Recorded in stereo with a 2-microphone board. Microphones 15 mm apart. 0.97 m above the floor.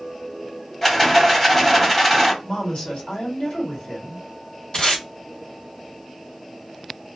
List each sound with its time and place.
0.8 s a rattle: 15° left (ahead or behind), 1.4 m
2.4 s a woman speaking: 80° left, 1.7 m
4.7 s tape being pulled: 60° left (ahead or behind), 1.3 m